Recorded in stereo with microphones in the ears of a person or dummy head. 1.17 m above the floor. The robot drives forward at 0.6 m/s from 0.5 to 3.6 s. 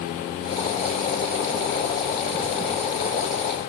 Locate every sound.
Only background noise.